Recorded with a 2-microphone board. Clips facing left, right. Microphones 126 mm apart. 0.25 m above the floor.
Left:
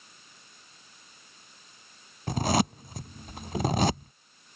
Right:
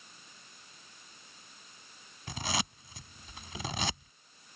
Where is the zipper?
45° left (ahead or behind).